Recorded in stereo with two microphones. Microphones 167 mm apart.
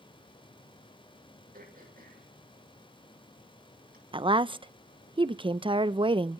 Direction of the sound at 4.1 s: 30° right (ahead or behind).